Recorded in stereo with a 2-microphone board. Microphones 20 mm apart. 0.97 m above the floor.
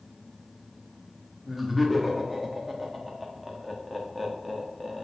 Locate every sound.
1.4 s laughter: centre (ahead or behind), 1.4 m